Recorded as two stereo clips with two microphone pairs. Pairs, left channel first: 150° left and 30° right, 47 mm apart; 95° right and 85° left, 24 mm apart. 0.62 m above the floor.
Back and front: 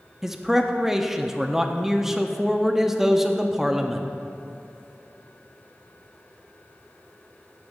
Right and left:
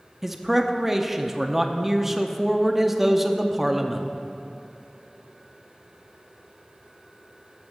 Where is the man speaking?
45° left, 0.5 m.